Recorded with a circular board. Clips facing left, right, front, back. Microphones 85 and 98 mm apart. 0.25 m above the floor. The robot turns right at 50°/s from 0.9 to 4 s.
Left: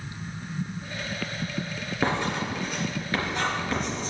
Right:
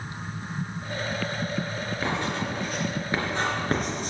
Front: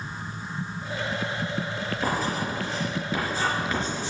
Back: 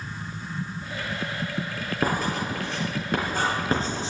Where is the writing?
145° left, 3.5 m; by 4.1 s 115° right, 3.5 m.